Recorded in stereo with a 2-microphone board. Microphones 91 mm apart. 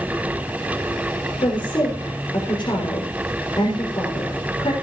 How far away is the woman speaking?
About 6 m.